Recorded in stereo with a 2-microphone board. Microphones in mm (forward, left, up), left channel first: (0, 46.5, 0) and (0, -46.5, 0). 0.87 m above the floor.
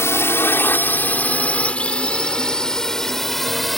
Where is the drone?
30° left (ahead or behind); by 3.8 s centre (ahead or behind).